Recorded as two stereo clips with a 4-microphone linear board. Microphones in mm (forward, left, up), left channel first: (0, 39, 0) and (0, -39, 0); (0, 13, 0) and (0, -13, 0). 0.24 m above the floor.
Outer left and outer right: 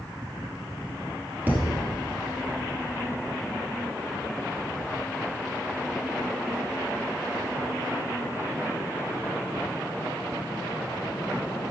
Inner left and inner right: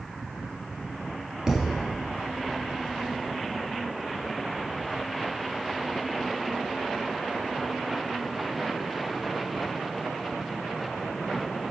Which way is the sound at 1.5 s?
20° right (ahead or behind).